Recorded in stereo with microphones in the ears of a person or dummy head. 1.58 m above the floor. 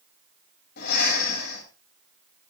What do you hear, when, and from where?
0.8 s breathing: 60° left (ahead or behind), 9 m